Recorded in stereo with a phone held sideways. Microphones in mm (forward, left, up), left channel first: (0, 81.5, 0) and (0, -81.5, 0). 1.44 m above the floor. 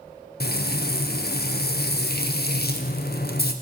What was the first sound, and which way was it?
Frying, 75° left (ahead or behind).